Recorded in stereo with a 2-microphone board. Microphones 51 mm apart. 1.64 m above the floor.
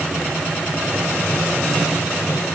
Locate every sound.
Only background noise.